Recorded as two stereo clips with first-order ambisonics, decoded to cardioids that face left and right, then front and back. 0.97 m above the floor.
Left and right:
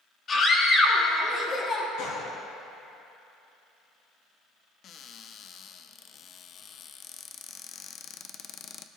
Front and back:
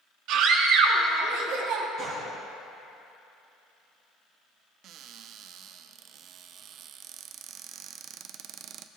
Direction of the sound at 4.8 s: 140° left.